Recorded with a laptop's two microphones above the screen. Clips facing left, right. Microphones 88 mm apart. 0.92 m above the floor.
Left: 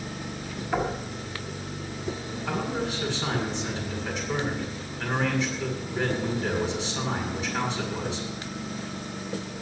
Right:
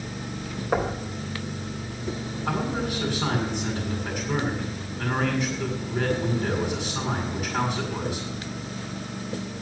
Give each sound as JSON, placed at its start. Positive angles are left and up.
{"t": 0.7, "sound": "knocking", "side_deg": -60, "distance_m": 3.0}
{"t": 2.5, "sound": "a man speaking", "side_deg": -50, "distance_m": 8.0}